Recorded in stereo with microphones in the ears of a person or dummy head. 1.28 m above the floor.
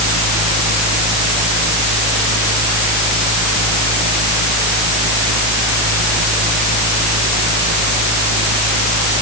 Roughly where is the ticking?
No ticking in this recording.